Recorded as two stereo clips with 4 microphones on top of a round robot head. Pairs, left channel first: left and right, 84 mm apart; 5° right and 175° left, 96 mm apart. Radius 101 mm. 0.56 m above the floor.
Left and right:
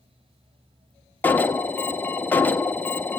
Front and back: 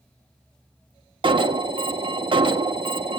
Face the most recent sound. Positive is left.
turn(degrees=155)